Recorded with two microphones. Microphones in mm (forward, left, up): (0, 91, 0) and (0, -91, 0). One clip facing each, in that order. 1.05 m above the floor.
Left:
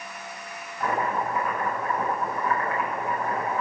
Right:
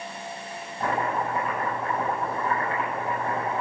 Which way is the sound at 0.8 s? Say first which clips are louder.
Even; 25° right (ahead or behind).